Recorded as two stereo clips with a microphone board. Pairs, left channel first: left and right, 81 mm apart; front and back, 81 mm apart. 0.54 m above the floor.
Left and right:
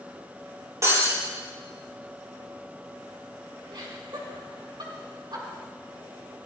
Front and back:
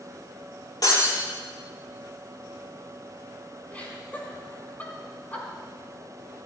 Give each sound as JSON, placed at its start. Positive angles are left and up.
{"t": 0.8, "sound": "breaking glass", "azimuth_deg": -35, "distance_m": 6.5}
{"t": 3.7, "sound": "laughter", "azimuth_deg": -70, "distance_m": 4.5}